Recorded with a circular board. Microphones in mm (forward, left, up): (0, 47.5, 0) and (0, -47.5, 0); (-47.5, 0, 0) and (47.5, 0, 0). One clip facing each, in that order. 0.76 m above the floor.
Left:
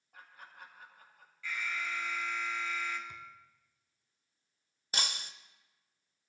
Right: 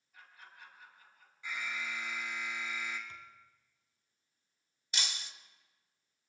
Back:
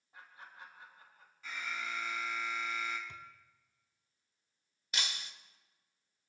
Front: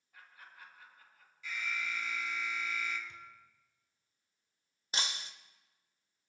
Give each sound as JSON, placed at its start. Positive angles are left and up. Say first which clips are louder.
{"t": 0.1, "sound": "laughter", "louder": "left 3 dB, back 3 dB", "azimuth_deg": 120, "distance_m": 3.0}
{"t": 1.4, "sound": "an alarm", "louder": "left 2 dB, front 1 dB", "azimuth_deg": -150, "distance_m": 2.0}
{"t": 3.1, "sound": "a thud", "louder": "left 3 dB, back 2 dB", "azimuth_deg": 165, "distance_m": 1.5}
{"t": 4.9, "sound": "breaking glass", "louder": "left 4 dB, front 2 dB", "azimuth_deg": 55, "distance_m": 0.7}